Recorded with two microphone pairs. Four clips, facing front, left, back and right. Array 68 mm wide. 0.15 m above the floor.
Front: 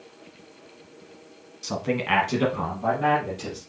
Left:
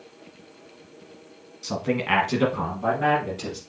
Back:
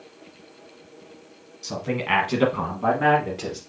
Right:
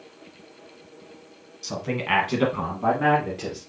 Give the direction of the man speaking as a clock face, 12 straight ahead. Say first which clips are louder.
Left 2 dB, front 1 dB; 11 o'clock.